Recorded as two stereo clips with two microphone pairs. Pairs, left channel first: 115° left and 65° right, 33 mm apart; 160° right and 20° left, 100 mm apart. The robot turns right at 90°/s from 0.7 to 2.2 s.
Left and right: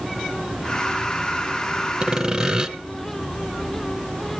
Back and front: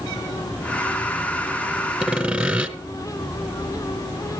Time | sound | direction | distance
2.0 | sawing | 55° right | 1.6 m